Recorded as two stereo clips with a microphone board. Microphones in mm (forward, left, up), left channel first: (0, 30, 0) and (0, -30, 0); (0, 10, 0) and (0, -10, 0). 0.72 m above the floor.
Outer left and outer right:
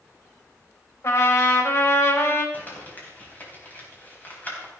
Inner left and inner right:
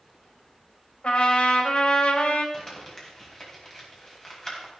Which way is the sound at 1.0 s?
60° left (ahead or behind).